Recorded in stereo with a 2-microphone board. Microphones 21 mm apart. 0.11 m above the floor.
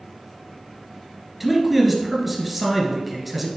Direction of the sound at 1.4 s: 5° right (ahead or behind).